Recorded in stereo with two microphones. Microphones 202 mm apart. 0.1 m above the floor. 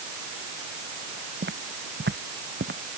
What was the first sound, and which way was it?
Footsteps, 55° right (ahead or behind).